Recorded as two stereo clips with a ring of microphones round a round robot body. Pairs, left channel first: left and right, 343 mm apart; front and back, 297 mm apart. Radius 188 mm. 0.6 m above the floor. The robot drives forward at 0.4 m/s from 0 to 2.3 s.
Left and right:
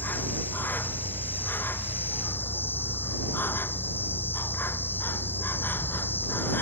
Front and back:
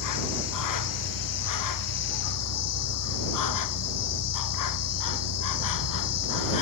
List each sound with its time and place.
0.0 s an insect: 5° left